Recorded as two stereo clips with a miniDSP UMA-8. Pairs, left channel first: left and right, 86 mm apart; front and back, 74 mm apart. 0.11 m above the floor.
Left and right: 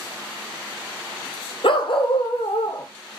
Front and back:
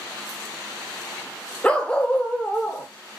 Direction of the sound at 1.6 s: 75° left.